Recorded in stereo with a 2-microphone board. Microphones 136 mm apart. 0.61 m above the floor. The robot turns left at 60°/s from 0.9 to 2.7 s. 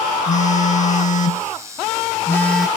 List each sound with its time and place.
0.3 s a phone buzzing: 105° left; by 2.7 s 5° right